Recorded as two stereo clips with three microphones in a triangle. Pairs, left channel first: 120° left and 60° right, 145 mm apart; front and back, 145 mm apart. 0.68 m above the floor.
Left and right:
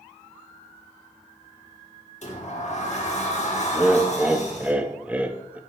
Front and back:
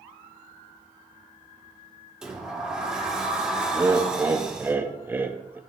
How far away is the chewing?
I don't hear chewing.